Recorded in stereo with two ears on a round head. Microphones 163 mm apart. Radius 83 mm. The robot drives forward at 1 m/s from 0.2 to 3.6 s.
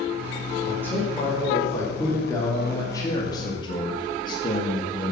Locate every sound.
0.7 s a man speaking: 10° left (ahead or behind), 5 m; by 5.1 s 25° left (ahead or behind), 2 m